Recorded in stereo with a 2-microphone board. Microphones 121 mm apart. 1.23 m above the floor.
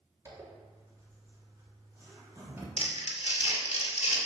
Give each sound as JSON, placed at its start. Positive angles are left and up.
{"t": 0.2, "sound": "a zipper", "side_deg": -20, "distance_m": 3.5}
{"t": 2.8, "sound": "crumpling", "side_deg": 65, "distance_m": 2.5}